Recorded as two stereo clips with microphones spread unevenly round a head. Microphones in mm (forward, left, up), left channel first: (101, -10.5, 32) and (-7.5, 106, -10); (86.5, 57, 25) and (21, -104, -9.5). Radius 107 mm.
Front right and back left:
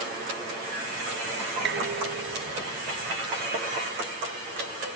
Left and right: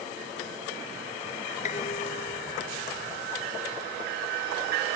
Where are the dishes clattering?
130° left.